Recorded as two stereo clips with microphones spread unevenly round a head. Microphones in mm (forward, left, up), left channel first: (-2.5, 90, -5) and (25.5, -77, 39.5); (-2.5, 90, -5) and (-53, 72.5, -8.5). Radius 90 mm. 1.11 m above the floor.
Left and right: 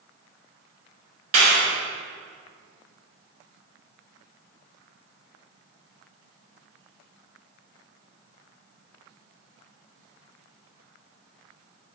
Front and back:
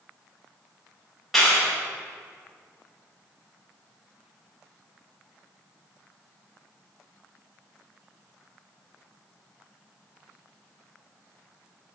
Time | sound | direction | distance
1.3 | a clap | 70° right | 5 m